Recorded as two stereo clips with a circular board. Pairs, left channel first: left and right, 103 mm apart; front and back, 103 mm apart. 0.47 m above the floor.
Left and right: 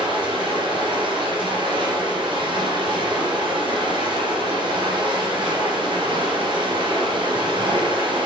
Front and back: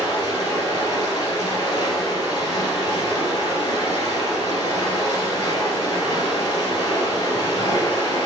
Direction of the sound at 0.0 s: 50° right.